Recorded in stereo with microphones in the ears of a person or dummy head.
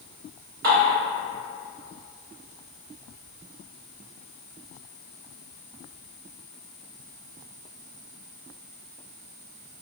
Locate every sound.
0.6 s dishes clattering: 55° right (ahead or behind), 1.4 m